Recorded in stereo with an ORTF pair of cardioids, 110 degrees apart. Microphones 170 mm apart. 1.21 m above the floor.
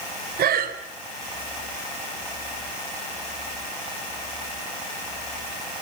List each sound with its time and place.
0.4 s breathing: 55° right, 4 m